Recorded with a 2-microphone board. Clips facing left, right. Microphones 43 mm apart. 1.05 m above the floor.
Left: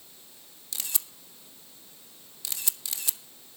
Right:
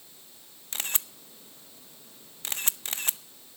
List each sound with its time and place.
0.7 s a camera shutter: 40° right (ahead or behind), 0.8 m